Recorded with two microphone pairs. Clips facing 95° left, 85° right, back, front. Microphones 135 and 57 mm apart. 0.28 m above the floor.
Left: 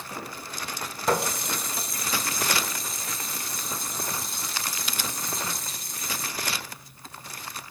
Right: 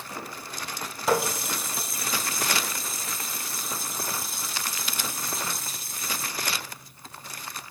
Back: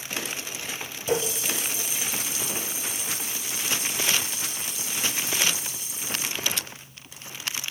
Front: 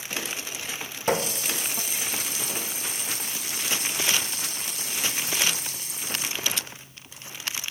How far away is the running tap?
About 1.5 m.